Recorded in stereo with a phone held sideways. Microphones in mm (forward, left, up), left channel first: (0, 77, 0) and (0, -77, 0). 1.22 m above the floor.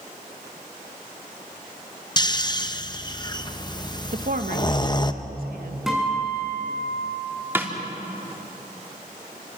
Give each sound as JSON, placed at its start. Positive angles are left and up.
{"t": 2.2, "sound": "snoring", "side_deg": 25, "distance_m": 0.8}
{"t": 4.1, "sound": "a woman speaking", "side_deg": -70, "distance_m": 1.4}
{"t": 5.9, "sound": "a guitar", "side_deg": -5, "distance_m": 7.0}
{"t": 7.5, "sound": "a snare drum", "side_deg": -15, "distance_m": 3.0}